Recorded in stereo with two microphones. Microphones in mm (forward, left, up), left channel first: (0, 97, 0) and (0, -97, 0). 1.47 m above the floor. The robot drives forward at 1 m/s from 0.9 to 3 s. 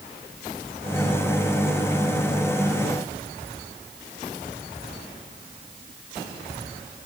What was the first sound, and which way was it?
Only background noise.